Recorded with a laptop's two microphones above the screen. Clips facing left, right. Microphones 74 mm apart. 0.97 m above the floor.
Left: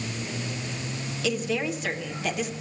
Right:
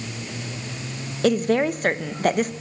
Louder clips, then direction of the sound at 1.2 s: Right 8 dB; 50° right (ahead or behind).